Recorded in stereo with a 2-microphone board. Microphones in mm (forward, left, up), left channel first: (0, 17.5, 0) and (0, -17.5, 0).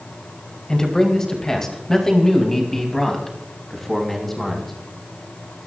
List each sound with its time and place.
0.7 s a man speaking: 20° left (ahead or behind), 3 m; by 4.7 s 5° left (ahead or behind), 5 m